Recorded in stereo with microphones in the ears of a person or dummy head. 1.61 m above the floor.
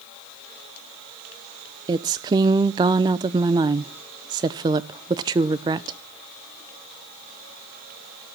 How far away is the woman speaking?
About 0.6 m.